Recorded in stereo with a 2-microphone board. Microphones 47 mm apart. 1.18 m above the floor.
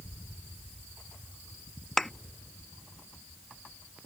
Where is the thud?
10° left (ahead or behind).